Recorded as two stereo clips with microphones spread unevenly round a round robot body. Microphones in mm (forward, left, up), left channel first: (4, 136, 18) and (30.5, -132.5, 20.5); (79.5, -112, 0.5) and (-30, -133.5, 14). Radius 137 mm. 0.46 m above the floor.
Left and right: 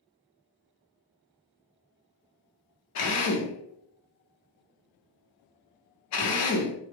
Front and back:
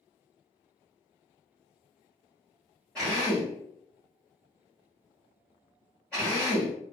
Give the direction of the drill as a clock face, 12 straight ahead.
9 o'clock.